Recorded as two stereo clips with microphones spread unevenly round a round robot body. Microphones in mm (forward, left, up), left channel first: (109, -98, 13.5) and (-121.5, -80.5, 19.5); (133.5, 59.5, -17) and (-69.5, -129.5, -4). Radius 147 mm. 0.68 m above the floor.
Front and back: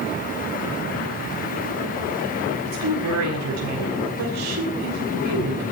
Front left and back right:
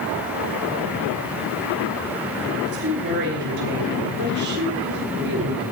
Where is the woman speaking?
165° left, 5.5 m.